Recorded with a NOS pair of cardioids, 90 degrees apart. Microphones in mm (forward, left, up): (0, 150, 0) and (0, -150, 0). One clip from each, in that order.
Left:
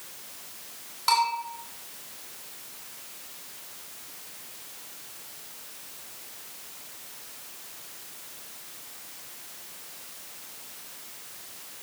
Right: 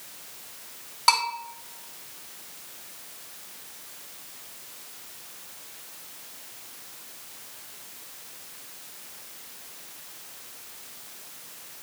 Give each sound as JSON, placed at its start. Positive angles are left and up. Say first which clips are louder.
{"t": 1.1, "sound": "a bell", "louder": "right 1 dB", "azimuth_deg": -45, "distance_m": 4.5}